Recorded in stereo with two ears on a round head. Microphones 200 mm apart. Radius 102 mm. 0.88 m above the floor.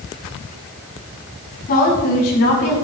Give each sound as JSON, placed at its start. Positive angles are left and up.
{"t": 1.7, "sound": "a woman speaking", "side_deg": 45, "distance_m": 5.5}